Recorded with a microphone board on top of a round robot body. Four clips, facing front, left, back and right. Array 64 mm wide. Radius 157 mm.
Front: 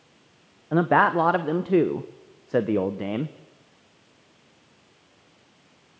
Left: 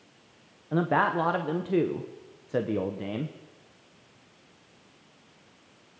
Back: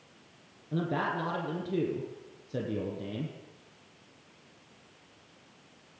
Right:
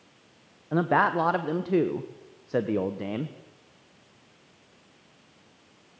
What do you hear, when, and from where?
0.7 s a man speaking: 10° right, 1.3 m